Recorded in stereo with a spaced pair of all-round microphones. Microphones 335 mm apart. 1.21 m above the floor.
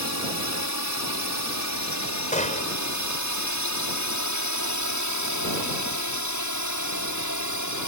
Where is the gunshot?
20° left (ahead or behind).